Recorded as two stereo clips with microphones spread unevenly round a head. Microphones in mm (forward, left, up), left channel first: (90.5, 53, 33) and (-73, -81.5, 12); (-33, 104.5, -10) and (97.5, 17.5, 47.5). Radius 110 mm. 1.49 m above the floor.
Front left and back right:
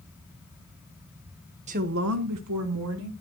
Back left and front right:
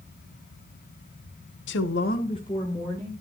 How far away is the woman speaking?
About 0.9 m.